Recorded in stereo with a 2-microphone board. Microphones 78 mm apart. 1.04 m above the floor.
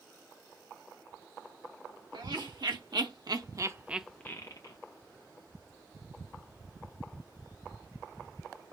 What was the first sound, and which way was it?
Laughter, 80° right.